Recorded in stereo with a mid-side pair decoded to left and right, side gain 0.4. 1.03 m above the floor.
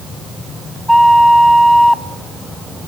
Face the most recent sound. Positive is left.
turn(degrees=0)